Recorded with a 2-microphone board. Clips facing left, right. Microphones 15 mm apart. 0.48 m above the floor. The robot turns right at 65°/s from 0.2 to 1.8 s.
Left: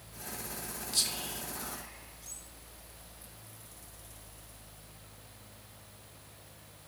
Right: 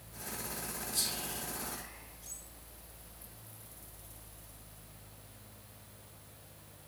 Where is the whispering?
35° left (ahead or behind), 1.1 m; by 2.4 s centre (ahead or behind), 1.1 m.